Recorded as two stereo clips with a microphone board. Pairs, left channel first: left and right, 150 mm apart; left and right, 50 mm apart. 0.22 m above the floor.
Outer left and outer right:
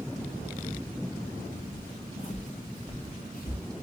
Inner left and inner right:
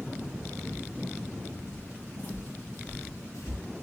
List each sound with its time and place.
1.7 s footsteps: 15° left (ahead or behind), 0.7 m; by 3.6 s 75° left (ahead or behind), 1.4 m